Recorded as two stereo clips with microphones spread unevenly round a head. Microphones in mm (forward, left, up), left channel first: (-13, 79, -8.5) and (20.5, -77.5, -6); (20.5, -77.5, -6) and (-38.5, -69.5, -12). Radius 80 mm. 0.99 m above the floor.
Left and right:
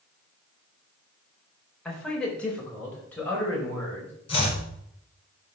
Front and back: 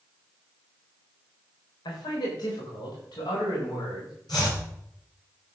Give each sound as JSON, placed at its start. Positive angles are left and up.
{"t": 1.9, "sound": "a man speaking", "azimuth_deg": 15, "distance_m": 4.0}
{"t": 4.3, "sound": "chopping", "azimuth_deg": 45, "distance_m": 5.0}